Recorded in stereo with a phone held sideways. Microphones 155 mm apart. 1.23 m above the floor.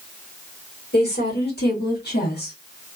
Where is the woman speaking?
85° left, 2 m.